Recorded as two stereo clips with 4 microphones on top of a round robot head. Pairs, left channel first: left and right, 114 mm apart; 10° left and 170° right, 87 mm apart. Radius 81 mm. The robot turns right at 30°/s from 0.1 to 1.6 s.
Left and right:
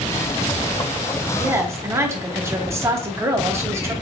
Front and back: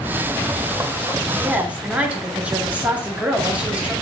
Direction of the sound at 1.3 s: 125° right.